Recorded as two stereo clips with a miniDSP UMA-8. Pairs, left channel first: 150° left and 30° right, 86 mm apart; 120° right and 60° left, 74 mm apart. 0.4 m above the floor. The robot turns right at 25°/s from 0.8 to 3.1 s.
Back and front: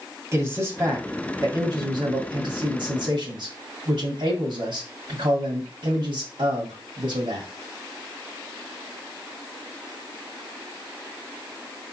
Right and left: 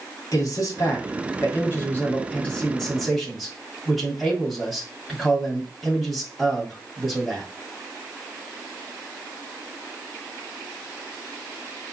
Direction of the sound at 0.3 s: 85° right.